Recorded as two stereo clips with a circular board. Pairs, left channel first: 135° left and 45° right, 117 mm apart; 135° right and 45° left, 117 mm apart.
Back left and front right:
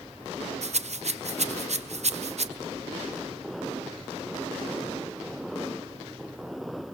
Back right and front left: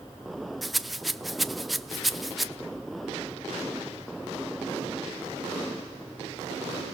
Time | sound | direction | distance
0.6 | a rattle | 45° right | 0.7 m